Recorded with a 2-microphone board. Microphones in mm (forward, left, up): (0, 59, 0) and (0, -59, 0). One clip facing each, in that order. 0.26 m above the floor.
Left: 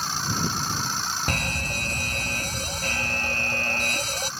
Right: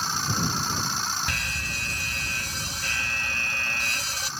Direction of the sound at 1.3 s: 45° left (ahead or behind).